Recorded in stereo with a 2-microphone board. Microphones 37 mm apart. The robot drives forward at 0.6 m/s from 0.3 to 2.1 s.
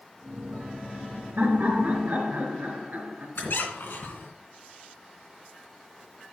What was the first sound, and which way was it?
Laughter, 50° right (ahead or behind).